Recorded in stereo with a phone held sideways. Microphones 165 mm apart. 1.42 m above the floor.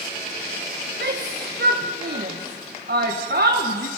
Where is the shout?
70° right (ahead or behind), 1.3 m.